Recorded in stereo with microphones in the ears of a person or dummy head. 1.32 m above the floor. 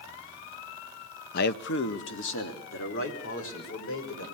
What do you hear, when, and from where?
1.3 s a man speaking: 55° left (ahead or behind), 0.5 m; by 4.2 s 85° left, 5 m